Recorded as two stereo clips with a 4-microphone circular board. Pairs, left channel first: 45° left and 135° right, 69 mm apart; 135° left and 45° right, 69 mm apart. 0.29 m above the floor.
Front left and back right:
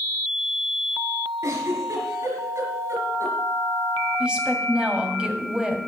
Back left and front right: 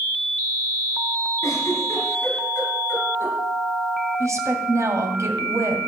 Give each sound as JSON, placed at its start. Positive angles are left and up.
{"t": 1.4, "sound": "a giggle", "azimuth_deg": -175, "distance_m": 4.0}
{"t": 4.2, "sound": "a woman speaking", "azimuth_deg": -65, "distance_m": 1.8}